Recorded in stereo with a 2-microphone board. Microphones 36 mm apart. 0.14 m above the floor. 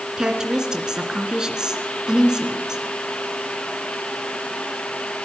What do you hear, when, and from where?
0.2 s a woman speaking: 20° right (ahead or behind), 2 m